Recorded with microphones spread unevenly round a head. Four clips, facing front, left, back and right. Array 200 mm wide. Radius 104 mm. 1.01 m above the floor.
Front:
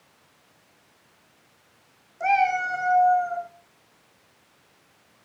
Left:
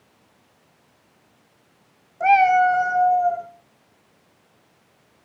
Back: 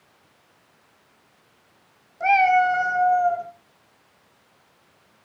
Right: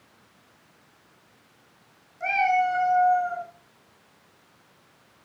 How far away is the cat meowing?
About 1.9 m.